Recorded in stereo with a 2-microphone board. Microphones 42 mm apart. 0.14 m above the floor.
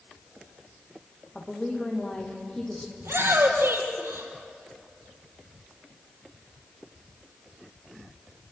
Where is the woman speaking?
30° left (ahead or behind), 7 m; by 2.9 s 10° left (ahead or behind), 6.5 m.